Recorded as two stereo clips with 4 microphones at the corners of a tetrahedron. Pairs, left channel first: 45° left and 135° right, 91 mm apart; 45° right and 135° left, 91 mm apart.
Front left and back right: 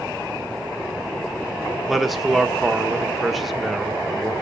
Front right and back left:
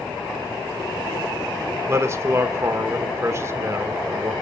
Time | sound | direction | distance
1.9 | a man speaking | 135° left | 1.0 m